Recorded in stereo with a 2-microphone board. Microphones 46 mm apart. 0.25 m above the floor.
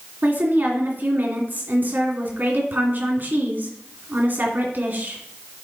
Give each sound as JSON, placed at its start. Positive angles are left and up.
{"t": 0.2, "sound": "a woman speaking", "side_deg": -45, "distance_m": 2.0}